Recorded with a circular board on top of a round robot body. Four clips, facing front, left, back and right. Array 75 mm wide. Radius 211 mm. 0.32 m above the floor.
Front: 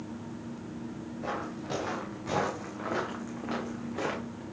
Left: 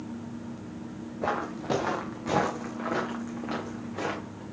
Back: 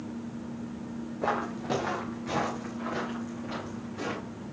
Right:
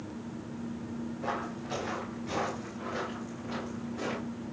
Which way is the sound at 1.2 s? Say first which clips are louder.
Left 8 dB, back 6 dB; 135° left.